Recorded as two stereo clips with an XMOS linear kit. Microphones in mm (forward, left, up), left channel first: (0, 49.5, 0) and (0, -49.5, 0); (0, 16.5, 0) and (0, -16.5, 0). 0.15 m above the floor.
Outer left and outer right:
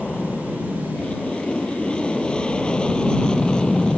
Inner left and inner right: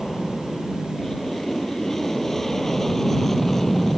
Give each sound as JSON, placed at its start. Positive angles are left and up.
{"t": 0.0, "sound": "an aircraft", "side_deg": 10}